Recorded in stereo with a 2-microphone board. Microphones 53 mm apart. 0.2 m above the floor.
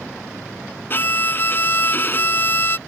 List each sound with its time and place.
0.9 s a violin: 40° left (ahead or behind)